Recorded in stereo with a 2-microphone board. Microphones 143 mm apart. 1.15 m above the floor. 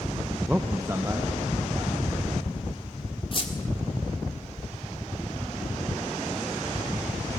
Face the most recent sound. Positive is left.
turn(degrees=40)  # may be behind; listen again after turning